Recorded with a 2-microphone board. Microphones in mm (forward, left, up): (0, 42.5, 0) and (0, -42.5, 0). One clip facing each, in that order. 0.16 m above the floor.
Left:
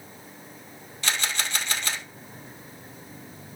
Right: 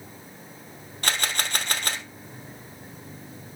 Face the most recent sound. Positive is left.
turn(degrees=-50)  # may be behind; listen again after turning